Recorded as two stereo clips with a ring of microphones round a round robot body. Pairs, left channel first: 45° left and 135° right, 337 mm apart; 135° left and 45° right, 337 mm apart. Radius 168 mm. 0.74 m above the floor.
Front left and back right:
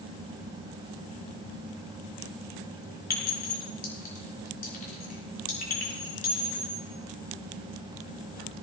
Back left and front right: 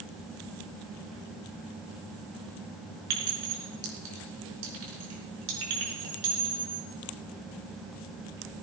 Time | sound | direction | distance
3.1 | a clink | 20° right | 5.5 m